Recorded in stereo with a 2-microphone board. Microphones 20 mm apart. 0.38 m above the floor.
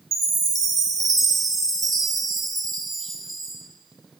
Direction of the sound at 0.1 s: 20° left (ahead or behind).